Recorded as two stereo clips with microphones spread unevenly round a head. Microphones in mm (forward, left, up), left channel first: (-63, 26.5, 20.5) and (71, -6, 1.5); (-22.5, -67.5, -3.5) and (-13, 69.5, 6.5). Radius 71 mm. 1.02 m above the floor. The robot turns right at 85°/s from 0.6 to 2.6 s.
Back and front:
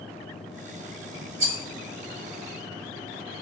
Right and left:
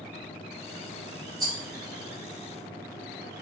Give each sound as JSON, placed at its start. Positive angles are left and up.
{"t": 1.4, "sound": "a rattle", "azimuth_deg": 25, "distance_m": 0.8}